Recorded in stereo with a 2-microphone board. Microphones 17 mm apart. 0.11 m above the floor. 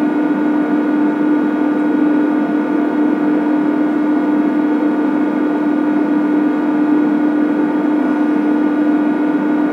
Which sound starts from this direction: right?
An engine running, at 0.0 s.